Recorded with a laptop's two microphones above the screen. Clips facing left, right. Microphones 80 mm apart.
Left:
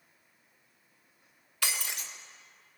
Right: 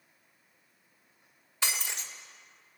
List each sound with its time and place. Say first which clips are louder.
1.6 s breaking glass: right 1 dB; 25° right (ahead or behind), 1.6 m